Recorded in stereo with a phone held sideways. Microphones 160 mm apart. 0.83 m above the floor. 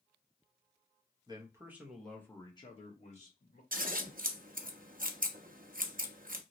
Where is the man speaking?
25° right (ahead or behind), 1.1 m; by 3.6 s 60° left (ahead or behind), 1.3 m.